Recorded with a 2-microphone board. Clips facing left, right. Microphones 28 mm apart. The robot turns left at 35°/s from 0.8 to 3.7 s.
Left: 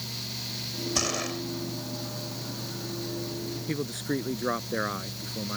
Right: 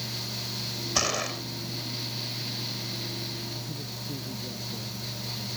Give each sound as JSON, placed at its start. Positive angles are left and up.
{"t": 0.9, "sound": "a gunshot", "side_deg": -20}
{"t": 3.7, "sound": "a man speaking", "side_deg": 85}